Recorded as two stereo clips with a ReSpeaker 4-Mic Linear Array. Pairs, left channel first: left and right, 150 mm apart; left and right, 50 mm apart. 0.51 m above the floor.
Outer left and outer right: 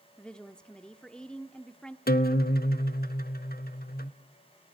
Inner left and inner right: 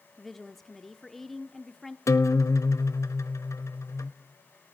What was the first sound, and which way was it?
A woman speaking, 5° left (ahead or behind).